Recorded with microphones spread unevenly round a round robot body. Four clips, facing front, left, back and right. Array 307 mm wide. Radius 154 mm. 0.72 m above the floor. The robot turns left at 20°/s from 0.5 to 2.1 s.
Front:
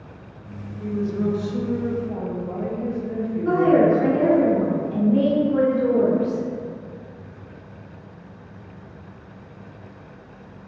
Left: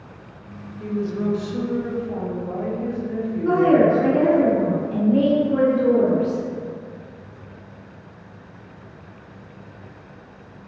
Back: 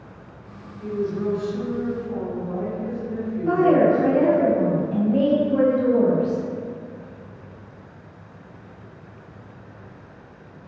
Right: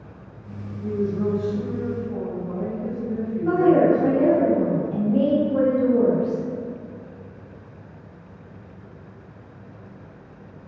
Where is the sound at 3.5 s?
75° left, 1.7 m.